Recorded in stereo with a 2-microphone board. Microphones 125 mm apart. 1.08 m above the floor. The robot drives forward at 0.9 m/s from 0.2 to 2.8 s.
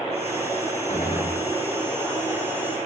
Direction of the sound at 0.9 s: 70° left (ahead or behind).